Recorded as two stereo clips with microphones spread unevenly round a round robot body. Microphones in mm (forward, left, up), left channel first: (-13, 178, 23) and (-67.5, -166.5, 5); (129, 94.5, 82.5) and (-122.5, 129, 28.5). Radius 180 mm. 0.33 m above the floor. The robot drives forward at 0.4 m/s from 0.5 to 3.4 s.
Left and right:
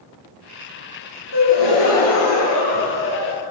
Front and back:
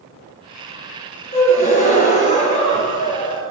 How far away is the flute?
No flute in this recording.